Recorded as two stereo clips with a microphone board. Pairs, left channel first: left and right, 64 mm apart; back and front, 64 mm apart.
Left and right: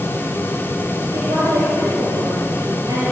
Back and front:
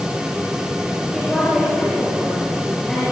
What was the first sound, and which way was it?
A woman speaking, 90° right.